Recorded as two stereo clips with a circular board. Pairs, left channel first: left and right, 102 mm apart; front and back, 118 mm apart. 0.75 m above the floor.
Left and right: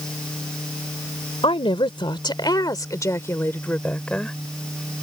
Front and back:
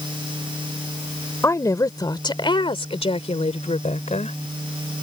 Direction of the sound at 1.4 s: 65° left.